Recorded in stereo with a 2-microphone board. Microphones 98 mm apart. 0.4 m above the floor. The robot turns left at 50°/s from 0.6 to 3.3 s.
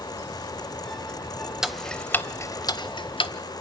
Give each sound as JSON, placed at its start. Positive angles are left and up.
{"t": 1.6, "sound": "ticking", "side_deg": -5, "distance_m": 0.7}